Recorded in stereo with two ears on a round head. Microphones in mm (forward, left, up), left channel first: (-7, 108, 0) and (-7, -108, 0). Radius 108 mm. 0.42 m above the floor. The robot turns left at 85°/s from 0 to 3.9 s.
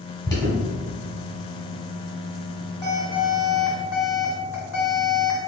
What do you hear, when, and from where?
0.3 s an alarm: 20° left (ahead or behind), 1.9 m; by 5.4 s 70° left (ahead or behind), 1.9 m